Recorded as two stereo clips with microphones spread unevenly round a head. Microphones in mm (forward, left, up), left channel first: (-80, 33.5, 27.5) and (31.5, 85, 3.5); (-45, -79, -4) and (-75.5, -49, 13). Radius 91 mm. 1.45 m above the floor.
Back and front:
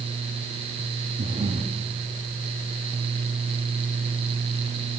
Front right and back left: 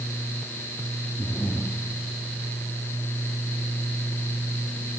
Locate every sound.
1.2 s breathing: 65° left, 1.3 m